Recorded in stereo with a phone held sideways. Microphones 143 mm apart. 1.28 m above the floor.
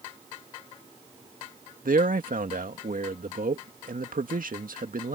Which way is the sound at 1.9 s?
80° right.